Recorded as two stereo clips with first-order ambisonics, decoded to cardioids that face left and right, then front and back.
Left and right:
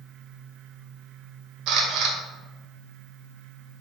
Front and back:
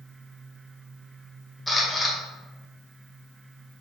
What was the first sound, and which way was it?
A camera shutter, 80° right.